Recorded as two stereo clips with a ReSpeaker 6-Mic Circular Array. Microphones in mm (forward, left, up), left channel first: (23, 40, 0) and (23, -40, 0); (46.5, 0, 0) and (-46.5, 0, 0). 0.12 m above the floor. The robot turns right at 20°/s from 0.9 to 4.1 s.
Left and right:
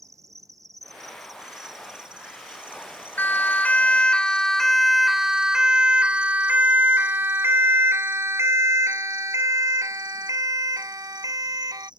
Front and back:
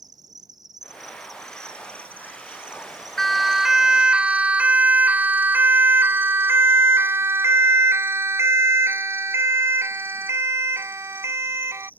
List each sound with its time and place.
0.0 s an insect: 135° right; by 12.0 s 70° right
3.2 s a siren: 85° left; by 11.9 s 125° right